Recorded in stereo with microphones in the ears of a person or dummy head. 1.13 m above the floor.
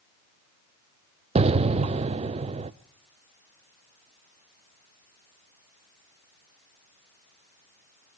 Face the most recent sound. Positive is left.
turn(degrees=-25)  # may be behind; listen again after turning